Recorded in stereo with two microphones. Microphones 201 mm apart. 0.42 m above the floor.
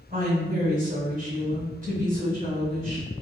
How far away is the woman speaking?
About 1.4 m.